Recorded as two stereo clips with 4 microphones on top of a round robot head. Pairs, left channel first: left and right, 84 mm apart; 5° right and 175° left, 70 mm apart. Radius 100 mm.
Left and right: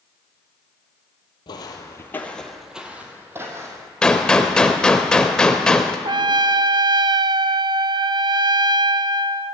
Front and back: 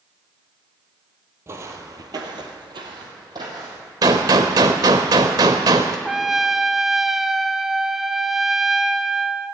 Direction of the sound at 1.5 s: 125° left.